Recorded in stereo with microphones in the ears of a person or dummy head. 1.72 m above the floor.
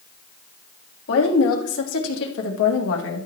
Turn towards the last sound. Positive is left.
turn(degrees=75)  # may be behind; listen again after turning